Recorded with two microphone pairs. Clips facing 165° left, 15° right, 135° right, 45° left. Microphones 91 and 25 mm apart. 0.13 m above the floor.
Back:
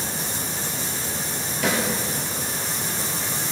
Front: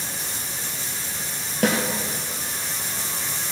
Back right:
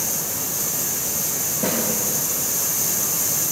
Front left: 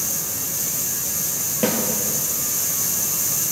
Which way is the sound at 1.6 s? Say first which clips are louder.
Front 3 dB, front left 3 dB; 20° left.